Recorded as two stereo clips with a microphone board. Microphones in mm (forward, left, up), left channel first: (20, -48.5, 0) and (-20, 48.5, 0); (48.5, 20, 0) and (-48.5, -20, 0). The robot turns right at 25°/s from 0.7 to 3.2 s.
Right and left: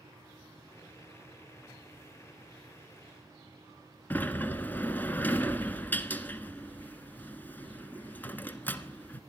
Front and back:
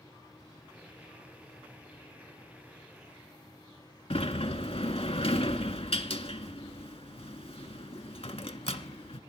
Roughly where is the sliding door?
Ahead.